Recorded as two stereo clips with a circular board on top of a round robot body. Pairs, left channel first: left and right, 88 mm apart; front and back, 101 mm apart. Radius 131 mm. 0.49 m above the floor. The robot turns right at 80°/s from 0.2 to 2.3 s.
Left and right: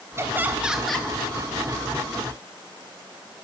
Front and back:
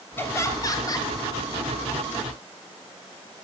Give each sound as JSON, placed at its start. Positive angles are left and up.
{"t": 0.2, "sound": "laughter", "azimuth_deg": -50, "distance_m": 0.9}